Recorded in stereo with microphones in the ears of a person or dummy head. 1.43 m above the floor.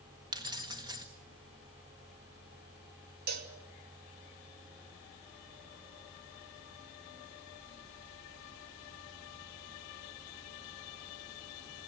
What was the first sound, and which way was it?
Keys jangling, 20° right (ahead or behind).